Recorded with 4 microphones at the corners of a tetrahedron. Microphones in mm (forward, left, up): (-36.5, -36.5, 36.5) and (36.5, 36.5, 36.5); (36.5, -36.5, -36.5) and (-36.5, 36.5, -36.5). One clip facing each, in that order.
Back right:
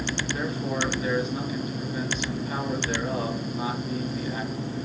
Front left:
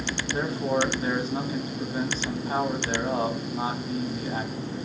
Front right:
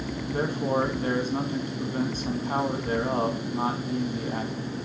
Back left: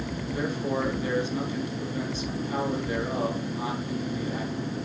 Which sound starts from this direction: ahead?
A man speaking, at 0.3 s.